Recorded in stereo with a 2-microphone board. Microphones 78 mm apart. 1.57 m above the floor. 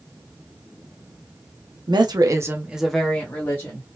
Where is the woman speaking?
65° right (ahead or behind), 0.9 m; by 3.9 s 35° left (ahead or behind), 1.5 m.